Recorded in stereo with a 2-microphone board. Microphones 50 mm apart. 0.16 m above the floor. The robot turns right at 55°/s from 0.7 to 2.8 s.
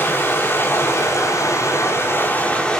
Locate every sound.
0.0 s running water: 50° left, 5.5 m; by 2.8 s 170° left, 5.5 m